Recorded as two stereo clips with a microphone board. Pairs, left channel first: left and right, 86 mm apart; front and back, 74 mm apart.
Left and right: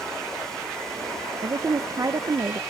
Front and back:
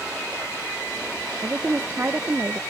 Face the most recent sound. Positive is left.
turn(degrees=-120)